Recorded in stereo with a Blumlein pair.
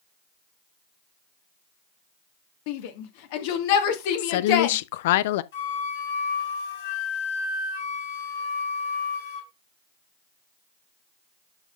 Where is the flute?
60° left, 5 m.